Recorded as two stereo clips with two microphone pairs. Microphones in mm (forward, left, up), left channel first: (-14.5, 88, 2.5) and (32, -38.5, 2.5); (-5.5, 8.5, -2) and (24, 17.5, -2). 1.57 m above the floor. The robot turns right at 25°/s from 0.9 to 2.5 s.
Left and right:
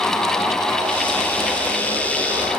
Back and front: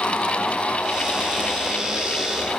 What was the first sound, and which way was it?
Only background noise.